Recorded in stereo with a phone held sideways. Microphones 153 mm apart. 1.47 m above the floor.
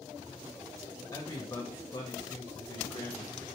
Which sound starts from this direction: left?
A man speaking, at 1.1 s.